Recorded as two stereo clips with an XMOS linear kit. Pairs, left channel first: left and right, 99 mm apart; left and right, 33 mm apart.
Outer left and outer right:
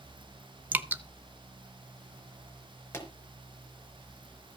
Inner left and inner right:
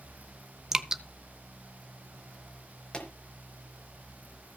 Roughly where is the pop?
Left.